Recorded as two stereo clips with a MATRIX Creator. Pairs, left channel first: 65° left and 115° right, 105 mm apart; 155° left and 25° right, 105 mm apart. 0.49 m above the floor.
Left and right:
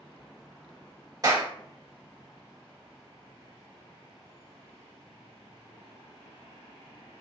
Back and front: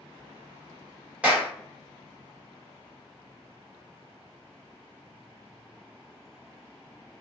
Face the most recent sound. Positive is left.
turn(degrees=-95)